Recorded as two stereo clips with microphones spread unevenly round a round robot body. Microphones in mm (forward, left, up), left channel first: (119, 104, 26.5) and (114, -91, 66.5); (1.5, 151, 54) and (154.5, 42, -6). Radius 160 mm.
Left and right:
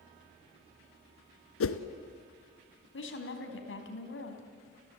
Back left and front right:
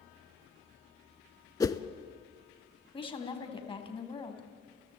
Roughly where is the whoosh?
Left.